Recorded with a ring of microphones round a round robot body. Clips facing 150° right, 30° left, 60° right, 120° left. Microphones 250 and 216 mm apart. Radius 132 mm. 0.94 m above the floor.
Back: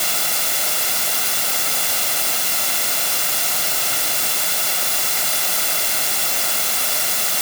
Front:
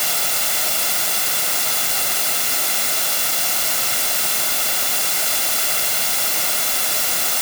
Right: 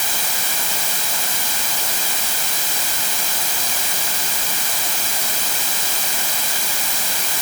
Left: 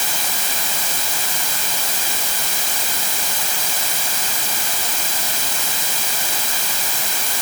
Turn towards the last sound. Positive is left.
No sound to turn to.